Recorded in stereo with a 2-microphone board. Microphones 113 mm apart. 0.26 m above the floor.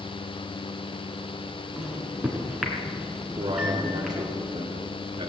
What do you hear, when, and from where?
1.8 s a microwave: 5° right (ahead or behind), 2 m
3.4 s a man speaking: 40° right (ahead or behind), 3 m